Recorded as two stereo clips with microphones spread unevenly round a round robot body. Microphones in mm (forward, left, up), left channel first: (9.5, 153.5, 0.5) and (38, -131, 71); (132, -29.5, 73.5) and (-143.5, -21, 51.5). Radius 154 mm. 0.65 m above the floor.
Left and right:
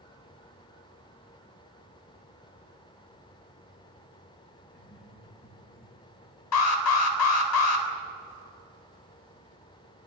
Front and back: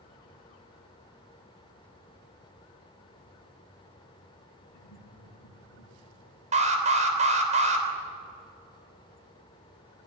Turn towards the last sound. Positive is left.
turn(degrees=115)